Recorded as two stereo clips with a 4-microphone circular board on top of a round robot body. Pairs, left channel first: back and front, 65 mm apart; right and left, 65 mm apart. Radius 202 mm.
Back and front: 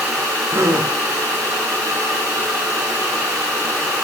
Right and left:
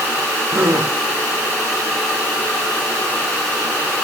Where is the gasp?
45° left, 6 m.